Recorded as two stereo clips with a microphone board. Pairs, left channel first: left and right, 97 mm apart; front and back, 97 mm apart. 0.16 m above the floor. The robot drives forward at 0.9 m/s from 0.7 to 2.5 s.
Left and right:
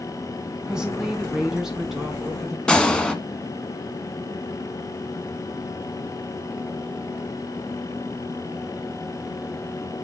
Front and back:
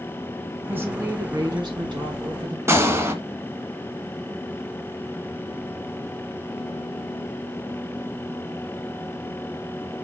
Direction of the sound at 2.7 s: 160° left.